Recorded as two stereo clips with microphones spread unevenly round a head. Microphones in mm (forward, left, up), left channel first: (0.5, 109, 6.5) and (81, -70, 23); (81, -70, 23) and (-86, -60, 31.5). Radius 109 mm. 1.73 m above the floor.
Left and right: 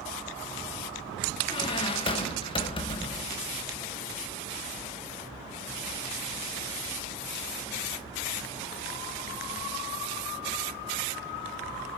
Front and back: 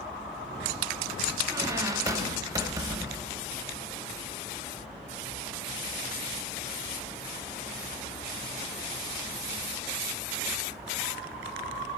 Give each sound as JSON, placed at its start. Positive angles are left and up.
{"t": 1.5, "sound": "a squeak", "azimuth_deg": 145, "distance_m": 0.9}